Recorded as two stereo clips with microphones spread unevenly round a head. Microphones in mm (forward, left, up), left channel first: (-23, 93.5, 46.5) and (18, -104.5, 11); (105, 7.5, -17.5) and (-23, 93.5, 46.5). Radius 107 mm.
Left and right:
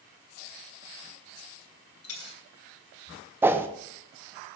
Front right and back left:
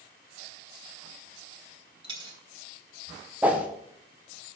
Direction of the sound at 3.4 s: 165° right.